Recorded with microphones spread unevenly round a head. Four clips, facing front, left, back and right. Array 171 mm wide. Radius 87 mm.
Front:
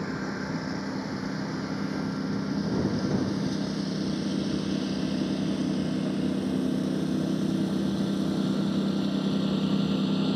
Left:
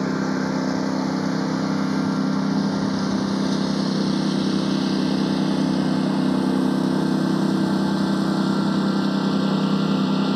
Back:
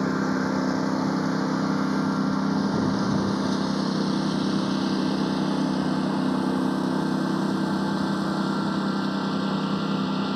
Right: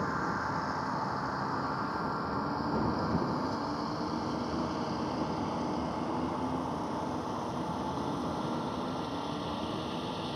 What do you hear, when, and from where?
0.0 s a lawn mower: 125° left; by 10.4 s 85° left